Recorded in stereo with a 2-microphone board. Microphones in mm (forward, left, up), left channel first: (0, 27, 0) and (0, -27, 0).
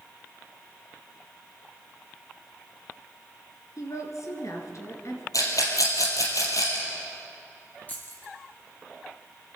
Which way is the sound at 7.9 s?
30° left (ahead or behind).